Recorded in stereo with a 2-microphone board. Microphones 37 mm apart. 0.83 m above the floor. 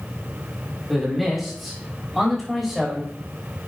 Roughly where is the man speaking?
Centre.